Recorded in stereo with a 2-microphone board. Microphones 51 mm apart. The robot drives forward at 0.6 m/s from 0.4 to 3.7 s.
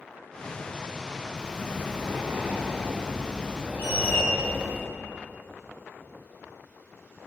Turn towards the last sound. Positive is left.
turn(degrees=70)  # may be behind; listen again after turning